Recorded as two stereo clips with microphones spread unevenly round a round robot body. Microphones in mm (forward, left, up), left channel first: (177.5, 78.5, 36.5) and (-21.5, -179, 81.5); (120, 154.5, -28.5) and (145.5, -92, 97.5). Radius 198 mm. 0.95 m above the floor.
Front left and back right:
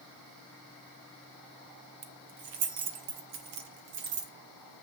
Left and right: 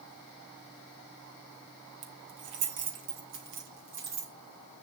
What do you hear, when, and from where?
2.0 s keys jangling: 90° right, 1.4 m; by 4.3 s 130° right, 2 m